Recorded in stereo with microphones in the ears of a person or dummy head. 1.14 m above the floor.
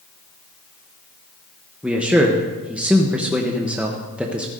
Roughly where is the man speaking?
Centre.